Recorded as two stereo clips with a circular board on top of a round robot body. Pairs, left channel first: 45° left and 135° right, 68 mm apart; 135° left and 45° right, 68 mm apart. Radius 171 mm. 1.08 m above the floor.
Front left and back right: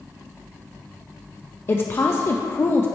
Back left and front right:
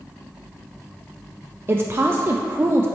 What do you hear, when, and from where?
1.7 s a woman speaking: straight ahead, 0.6 m